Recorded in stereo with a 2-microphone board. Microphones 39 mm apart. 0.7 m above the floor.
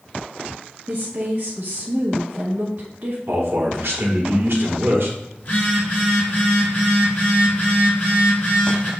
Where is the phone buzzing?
45° left (ahead or behind), 2.5 m.